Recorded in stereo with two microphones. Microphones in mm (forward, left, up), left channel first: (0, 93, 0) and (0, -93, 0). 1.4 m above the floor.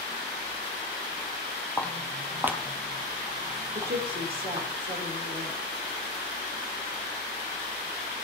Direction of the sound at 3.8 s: 55° right (ahead or behind).